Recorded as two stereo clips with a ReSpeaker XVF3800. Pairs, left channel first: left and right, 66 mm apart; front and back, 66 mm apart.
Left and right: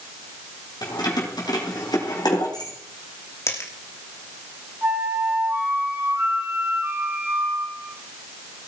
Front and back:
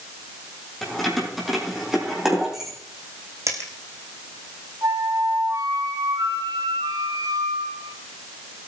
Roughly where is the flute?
Behind right.